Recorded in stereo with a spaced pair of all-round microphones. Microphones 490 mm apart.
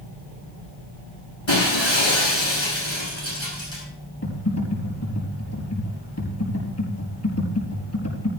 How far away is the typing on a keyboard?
About 4.5 m.